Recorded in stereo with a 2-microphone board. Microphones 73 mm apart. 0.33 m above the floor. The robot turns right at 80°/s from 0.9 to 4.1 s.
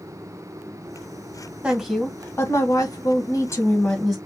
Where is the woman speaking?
15° right, 1.6 m; by 4.2 s straight behind, 1.6 m.